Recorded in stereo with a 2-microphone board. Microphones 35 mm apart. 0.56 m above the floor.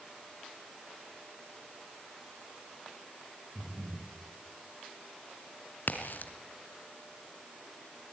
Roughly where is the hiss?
No hiss in this recording.